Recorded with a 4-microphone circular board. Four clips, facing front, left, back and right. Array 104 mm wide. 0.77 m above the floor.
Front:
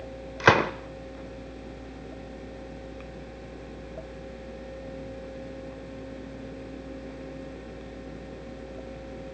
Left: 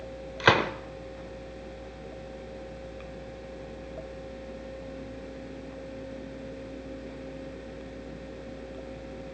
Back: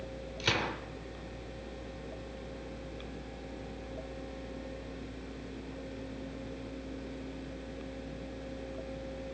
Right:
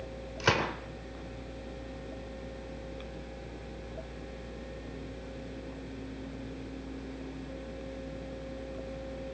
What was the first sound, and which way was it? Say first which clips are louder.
A gunshot: left 6 dB, front 14 dB; 25° left.